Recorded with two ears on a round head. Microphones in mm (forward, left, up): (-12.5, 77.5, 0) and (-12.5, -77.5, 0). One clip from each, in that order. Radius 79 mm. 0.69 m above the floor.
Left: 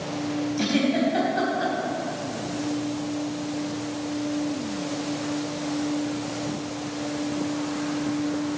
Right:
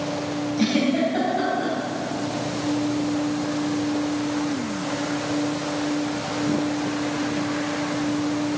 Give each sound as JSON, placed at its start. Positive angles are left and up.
{"t": 0.6, "sound": "a giggle", "side_deg": 30, "distance_m": 3.5}